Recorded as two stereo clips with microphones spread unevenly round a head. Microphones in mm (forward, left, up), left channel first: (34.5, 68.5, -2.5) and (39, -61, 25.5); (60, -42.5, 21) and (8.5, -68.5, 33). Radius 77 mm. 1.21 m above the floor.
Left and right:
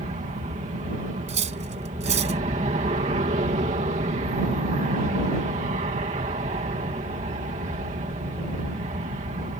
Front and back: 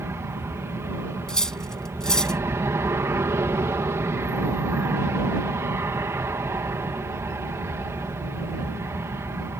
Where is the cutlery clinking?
55° right.